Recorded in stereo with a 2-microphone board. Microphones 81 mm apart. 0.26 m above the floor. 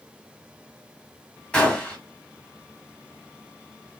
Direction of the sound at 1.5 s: 15° left (ahead or behind).